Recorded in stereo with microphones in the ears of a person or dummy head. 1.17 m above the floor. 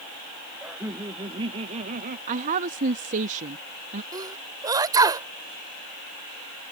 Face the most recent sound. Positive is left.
turn(degrees=-15)  # may be behind; listen again after turning